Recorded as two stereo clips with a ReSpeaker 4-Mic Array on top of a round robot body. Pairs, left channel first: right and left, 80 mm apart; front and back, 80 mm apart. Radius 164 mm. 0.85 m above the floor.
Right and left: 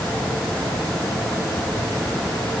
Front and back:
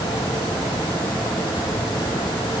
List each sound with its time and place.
Only background noise.